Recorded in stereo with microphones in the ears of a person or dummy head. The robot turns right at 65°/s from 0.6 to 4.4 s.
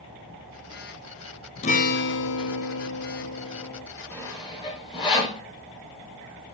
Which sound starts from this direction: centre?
Sawing, at 4.1 s.